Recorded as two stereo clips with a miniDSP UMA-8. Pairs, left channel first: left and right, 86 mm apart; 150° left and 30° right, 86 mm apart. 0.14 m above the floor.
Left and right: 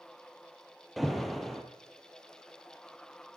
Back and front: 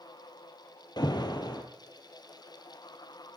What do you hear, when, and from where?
1.0 s an alarm: straight behind, 3 m